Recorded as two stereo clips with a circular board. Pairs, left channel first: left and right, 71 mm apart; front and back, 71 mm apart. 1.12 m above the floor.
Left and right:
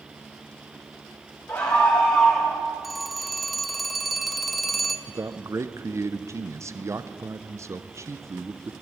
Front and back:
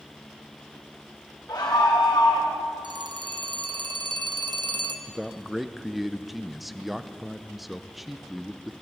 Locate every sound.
1.5 s a scream: 35° left, 1.4 m; by 2.6 s 5° left, 1.7 m
2.8 s a phone ringing: straight behind, 0.9 m
5.1 s a man speaking: 95° right, 0.6 m